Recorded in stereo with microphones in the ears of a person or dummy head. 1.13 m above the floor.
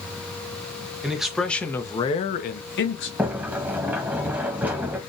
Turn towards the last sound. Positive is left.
turn(degrees=-5)  # may be behind; listen again after turning